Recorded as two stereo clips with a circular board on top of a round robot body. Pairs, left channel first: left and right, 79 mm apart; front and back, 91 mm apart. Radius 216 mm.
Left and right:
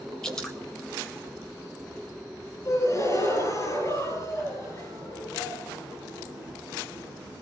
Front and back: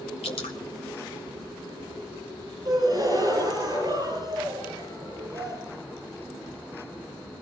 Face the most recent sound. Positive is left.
turn(degrees=135)